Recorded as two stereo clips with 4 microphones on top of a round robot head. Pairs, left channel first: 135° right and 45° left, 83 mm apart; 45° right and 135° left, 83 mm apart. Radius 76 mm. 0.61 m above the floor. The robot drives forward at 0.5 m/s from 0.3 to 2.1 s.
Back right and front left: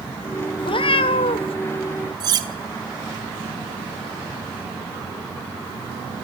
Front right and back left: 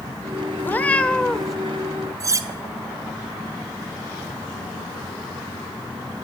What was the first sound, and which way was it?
A cat meowing, 110° right.